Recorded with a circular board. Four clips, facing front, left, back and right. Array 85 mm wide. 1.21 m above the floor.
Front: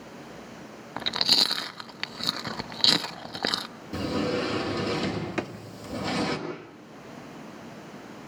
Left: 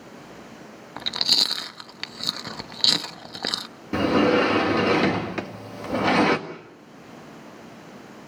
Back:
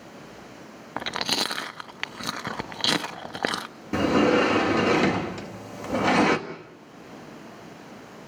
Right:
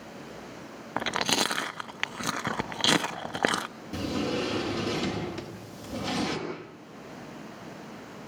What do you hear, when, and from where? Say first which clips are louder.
1.0 s chewing: right 5 dB, back 3 dB; 120° right, 0.6 m
3.9 s a sliding door: left 11 dB, back 8 dB; 135° left, 1.8 m
5.4 s a drawer: left 7 dB, front 6 dB; 45° left, 1.5 m